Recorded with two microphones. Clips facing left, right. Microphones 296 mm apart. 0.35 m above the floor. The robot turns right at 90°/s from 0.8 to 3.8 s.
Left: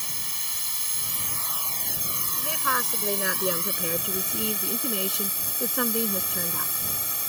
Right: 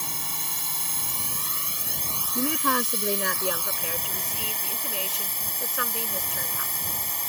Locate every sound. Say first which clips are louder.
0.0 s a drone: right 6 dB; 100° right; by 7.3 s 170° left
2.4 s a woman speaking: right 9 dB; 80° right; by 6.8 s 55° left